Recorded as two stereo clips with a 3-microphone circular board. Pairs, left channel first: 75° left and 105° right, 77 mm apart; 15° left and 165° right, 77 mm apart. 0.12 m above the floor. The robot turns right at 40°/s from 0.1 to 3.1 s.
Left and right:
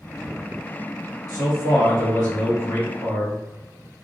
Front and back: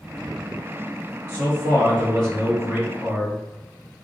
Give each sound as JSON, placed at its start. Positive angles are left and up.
{"t": 1.3, "sound": "a man speaking", "azimuth_deg": 70, "distance_m": 1.6}